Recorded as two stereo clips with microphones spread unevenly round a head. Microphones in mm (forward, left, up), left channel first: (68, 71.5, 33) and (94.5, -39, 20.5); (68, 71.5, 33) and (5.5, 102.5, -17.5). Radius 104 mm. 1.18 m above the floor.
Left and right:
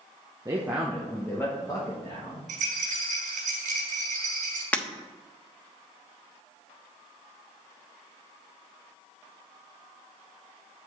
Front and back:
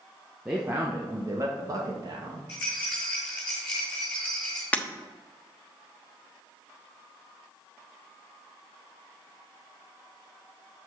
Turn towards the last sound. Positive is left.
turn(degrees=30)